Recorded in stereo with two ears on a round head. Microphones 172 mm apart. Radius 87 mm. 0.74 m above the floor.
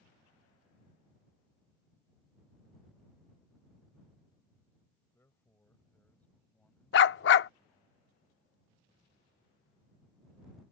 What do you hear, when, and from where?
5.1 s a man speaking: 10° left (ahead or behind); by 7.9 s centre (ahead or behind)
6.9 s a dog barking: 55° left (ahead or behind)